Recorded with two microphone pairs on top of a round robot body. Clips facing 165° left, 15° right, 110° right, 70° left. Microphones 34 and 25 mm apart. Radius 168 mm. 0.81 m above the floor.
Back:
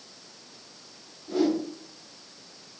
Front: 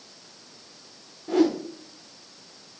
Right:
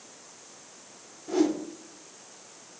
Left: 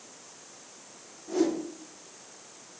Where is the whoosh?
40° right, 2 m.